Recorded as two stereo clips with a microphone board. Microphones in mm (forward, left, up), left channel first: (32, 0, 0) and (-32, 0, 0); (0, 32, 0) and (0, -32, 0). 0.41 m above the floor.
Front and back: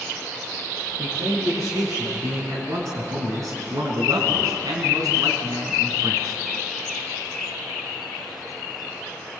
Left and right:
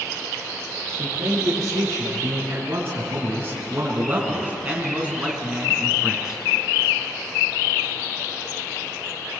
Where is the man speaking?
130° right, 6.5 m; by 6.4 s 175° right, 5 m.